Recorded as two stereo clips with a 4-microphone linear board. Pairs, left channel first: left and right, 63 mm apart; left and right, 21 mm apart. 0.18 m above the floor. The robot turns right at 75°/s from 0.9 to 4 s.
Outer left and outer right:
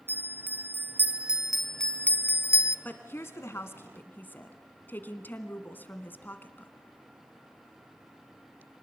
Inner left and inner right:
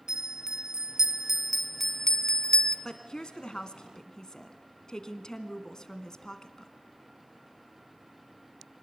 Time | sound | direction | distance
0.1 | a bell | 35° right (ahead or behind) | 0.9 m
2.9 | a woman speaking | 45° left | 1.6 m